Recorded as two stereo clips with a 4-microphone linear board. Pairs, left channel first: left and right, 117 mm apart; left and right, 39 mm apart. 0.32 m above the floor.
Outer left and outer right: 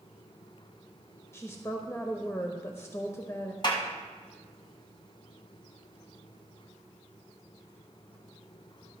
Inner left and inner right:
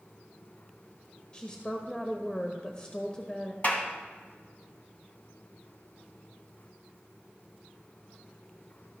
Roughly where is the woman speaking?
Left.